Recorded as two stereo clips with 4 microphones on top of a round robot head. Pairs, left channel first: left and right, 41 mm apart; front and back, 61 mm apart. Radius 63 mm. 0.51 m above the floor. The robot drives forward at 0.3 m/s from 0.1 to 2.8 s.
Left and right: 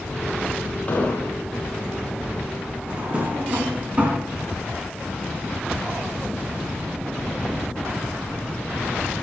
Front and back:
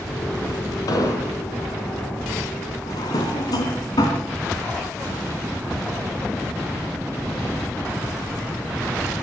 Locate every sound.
0.9 s an explosion: 25° left, 2.5 m
2.9 s a drawer: 25° right, 3 m